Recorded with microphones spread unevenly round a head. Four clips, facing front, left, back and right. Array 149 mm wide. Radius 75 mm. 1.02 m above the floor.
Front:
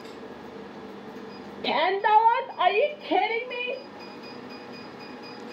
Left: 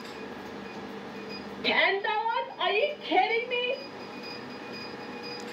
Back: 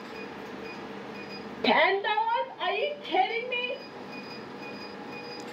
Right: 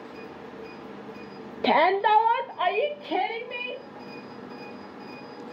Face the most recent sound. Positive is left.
turn(degrees=-5)